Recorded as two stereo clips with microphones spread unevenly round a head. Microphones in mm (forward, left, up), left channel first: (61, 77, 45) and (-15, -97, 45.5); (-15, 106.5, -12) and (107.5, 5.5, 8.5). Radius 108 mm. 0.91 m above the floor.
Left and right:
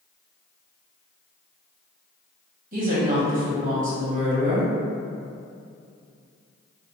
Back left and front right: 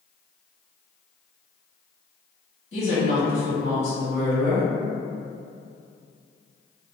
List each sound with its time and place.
2.7 s a woman speaking: 160° right, 1.2 m